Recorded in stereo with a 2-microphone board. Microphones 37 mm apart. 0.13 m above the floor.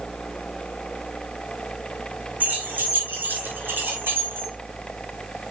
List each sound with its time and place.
2.4 s keys jangling: 50° right (ahead or behind), 4.5 m; by 4.5 s 80° right, 4.5 m